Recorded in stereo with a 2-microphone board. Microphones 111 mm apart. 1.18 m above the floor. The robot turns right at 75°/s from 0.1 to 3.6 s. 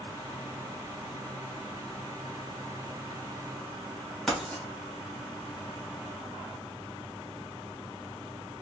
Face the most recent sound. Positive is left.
turn(degrees=5)  # may be behind; listen again after turning